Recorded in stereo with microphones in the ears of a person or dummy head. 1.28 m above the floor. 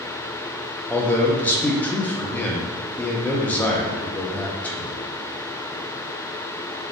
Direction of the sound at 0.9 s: 5° left (ahead or behind).